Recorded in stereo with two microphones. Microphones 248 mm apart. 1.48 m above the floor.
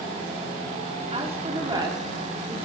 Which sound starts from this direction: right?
A woman speaking, at 1.1 s.